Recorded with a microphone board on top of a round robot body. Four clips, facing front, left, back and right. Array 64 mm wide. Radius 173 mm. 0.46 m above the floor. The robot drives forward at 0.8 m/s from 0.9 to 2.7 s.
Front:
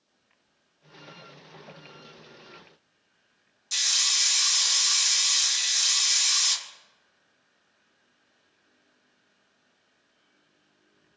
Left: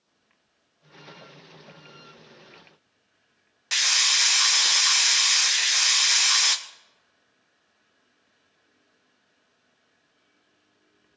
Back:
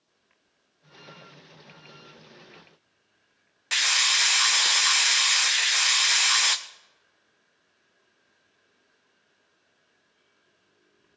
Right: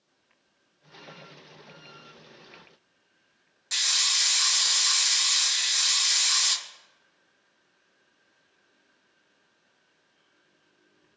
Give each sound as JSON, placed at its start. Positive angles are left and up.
{"t": 3.7, "sound": "a hiss", "azimuth_deg": 160, "distance_m": 0.8}